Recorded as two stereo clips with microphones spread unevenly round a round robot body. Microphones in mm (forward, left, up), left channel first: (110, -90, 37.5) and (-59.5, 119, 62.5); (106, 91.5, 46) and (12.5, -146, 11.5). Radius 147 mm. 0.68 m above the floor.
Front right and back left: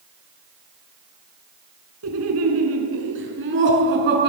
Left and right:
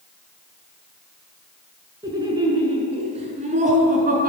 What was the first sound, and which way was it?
Laughter, 170° left.